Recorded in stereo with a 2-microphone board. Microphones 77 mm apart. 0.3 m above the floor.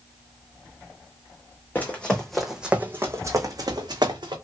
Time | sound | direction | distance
1.8 | running footsteps | 20° left (ahead or behind) | 1.0 m